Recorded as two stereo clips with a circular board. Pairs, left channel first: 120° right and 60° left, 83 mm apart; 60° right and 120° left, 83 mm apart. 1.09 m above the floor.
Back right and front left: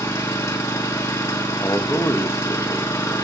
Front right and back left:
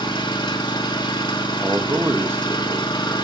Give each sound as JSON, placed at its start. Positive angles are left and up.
{"t": 0.0, "sound": "an engine running", "azimuth_deg": -65, "distance_m": 1.6}
{"t": 1.6, "sound": "a man speaking", "azimuth_deg": 180, "distance_m": 1.3}